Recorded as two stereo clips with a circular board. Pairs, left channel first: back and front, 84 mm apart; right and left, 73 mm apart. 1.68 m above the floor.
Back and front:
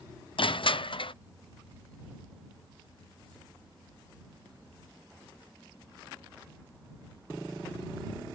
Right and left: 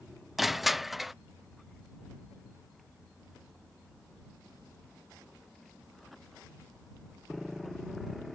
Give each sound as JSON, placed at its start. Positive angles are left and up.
{"t": 0.4, "sound": "crushing", "azimuth_deg": 175}